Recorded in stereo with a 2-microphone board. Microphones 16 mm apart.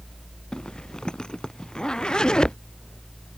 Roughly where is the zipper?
Left.